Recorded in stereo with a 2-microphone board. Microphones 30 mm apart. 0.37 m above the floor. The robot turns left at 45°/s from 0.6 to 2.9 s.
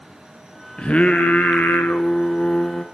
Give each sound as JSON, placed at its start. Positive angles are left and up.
{"t": 0.8, "sound": "singing", "azimuth_deg": 140, "distance_m": 2.5}